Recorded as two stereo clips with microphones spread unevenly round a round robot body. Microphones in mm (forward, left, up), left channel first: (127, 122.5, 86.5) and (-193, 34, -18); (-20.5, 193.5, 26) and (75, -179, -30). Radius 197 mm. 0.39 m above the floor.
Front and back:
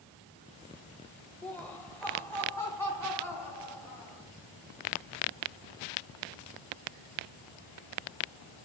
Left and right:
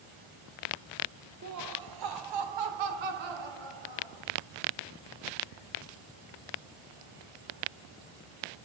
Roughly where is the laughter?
Right.